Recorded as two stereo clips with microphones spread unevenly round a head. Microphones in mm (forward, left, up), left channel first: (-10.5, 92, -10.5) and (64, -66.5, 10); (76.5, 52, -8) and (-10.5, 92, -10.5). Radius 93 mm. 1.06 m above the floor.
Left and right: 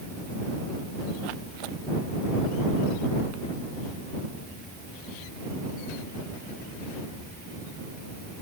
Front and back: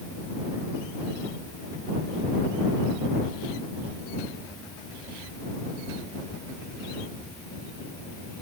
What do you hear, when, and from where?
Only background noise.